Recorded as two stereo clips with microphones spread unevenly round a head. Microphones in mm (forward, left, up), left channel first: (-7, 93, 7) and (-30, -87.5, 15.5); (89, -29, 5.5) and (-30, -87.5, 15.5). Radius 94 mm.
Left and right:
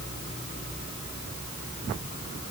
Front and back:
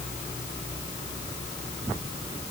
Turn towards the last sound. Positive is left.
No sound to turn to.